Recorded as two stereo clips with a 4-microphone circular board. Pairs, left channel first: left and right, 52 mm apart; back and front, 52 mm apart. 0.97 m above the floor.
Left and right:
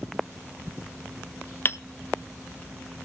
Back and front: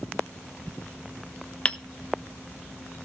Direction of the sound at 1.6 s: 120° left.